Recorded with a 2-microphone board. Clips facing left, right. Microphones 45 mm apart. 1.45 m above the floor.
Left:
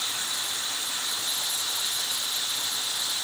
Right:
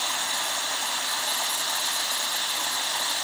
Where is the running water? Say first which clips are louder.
Right 4 dB; 65° right (ahead or behind).